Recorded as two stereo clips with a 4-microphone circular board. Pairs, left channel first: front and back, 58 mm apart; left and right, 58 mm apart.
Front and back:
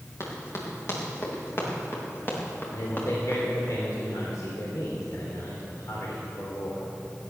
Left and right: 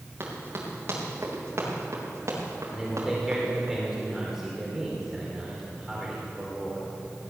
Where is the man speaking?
5° right, 3 m.